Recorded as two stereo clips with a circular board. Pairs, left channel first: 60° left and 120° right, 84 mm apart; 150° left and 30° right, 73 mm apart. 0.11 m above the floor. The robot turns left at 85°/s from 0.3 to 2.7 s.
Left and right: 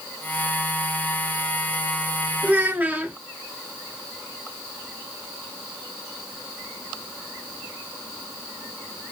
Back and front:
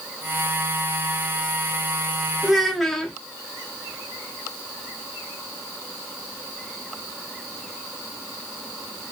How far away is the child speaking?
About 0.7 m.